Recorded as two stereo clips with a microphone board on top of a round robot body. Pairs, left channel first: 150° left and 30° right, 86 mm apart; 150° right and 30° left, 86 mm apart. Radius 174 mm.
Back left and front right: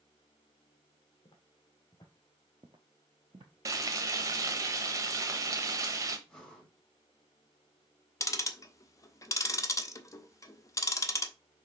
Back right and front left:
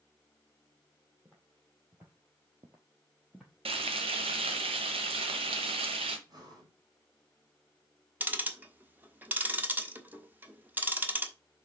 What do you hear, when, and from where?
1.2 s footsteps: 110° left, 1.1 m; by 3.5 s 55° right, 0.9 m
3.6 s frying: 25° left, 0.9 m
6.3 s breathing: 70° left, 4 m
8.2 s ticking: 100° left, 1.2 m